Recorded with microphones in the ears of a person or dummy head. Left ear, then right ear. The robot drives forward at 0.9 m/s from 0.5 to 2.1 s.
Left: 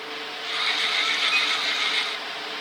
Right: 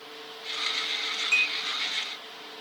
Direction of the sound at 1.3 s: 40° right (ahead or behind).